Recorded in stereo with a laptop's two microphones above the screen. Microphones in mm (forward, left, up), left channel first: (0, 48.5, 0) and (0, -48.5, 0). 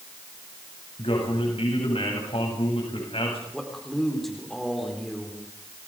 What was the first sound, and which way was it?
A man speaking, 75° left (ahead or behind).